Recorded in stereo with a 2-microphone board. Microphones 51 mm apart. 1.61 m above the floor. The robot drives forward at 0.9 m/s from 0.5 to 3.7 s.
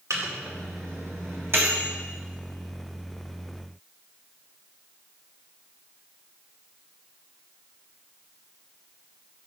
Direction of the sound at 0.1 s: 75° right (ahead or behind).